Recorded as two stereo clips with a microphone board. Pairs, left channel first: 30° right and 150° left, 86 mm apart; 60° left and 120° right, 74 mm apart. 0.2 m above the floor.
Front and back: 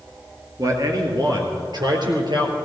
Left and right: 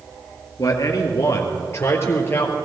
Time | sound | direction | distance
0.6 | a man speaking | 100° left | 3 m